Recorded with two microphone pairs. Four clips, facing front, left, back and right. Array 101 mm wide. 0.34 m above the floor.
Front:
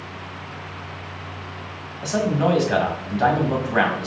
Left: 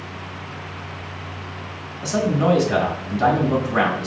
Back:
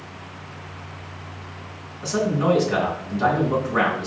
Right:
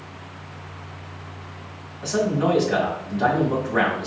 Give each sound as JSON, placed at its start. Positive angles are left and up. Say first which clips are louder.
{"t": 2.0, "sound": "a man speaking", "louder": "left 2 dB, even", "azimuth_deg": 0, "distance_m": 1.9}